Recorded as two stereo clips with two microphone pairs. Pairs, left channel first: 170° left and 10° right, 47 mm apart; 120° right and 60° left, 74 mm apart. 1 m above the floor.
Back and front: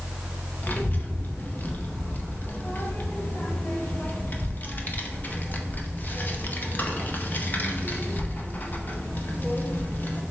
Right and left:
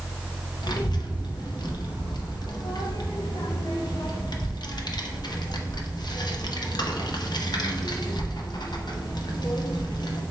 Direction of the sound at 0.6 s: 140° right.